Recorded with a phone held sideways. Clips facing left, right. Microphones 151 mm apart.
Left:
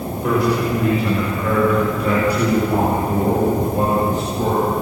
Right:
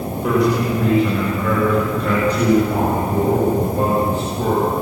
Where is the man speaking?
Centre (ahead or behind), 6 m; by 4.7 s 20° left (ahead or behind), 9 m.